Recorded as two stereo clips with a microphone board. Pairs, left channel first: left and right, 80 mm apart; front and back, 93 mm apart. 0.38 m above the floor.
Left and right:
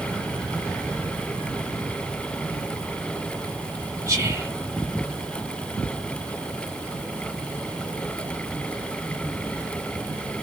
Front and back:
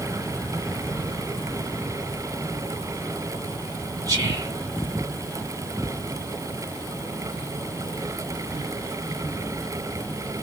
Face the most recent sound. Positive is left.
turn(degrees=-135)